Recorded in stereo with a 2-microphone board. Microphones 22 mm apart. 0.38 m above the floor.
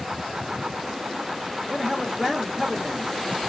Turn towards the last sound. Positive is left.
turn(degrees=-10)  # may be behind; listen again after turning